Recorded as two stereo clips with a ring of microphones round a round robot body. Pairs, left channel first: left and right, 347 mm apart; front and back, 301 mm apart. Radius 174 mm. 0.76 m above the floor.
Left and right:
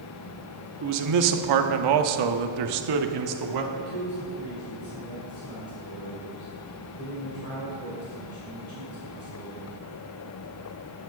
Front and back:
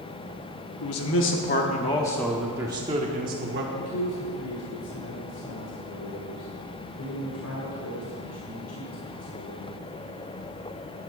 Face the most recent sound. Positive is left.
turn(degrees=40)